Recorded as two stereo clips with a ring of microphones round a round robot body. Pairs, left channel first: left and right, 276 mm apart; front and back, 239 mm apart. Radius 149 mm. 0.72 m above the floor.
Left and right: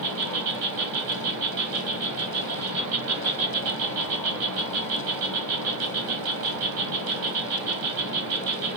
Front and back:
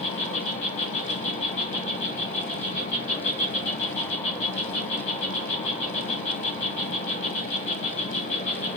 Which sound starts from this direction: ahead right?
An insect, at 0.0 s.